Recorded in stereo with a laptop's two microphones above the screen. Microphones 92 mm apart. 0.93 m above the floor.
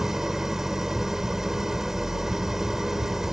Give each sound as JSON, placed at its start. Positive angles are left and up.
{"t": 0.0, "sound": "an engine running", "side_deg": -5}